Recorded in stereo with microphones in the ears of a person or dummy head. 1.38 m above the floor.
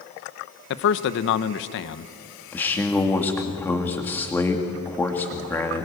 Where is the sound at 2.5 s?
10° left (ahead or behind), 2 m.